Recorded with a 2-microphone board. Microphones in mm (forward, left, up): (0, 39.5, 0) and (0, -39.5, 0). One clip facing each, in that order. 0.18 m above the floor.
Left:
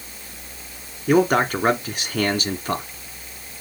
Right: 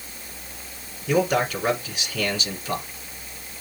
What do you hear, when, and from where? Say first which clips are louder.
1.1 s a man speaking: left 4 dB; 50° left (ahead or behind), 1.8 m